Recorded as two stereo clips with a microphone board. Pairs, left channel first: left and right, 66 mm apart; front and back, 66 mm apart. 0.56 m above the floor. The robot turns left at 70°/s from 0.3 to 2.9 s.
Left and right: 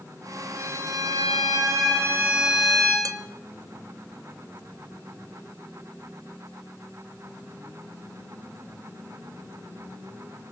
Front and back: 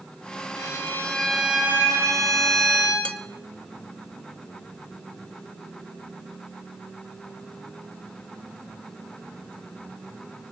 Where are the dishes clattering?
70° right, 0.9 m.